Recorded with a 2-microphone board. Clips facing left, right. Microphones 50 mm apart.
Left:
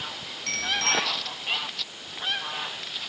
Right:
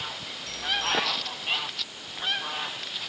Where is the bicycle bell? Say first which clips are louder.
Left 2 dB; 60° left (ahead or behind).